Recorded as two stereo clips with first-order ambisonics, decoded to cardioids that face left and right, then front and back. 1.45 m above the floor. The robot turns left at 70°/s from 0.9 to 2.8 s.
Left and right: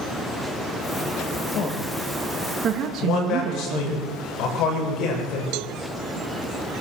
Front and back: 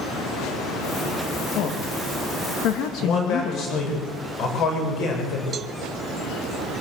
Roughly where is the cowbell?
Behind right.